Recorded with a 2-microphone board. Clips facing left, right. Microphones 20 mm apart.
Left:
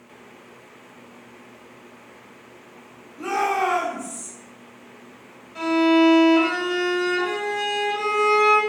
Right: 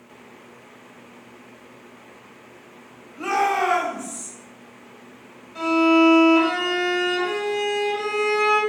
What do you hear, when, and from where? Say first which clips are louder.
3.2 s a shout: right 1 dB; 65° right (ahead or behind), 1.5 m; by 4.3 s 45° right (ahead or behind), 0.6 m
5.5 s a violin: right 1 dB; centre (ahead or behind), 1.0 m